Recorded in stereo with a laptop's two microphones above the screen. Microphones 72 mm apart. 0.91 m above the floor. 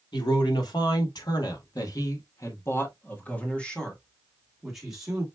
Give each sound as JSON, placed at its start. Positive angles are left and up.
{"t": 0.1, "sound": "a man speaking", "side_deg": 80, "distance_m": 2.0}